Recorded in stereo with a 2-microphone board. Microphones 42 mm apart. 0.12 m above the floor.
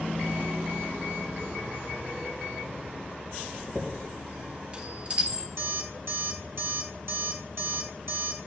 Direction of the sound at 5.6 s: 70° right (ahead or behind).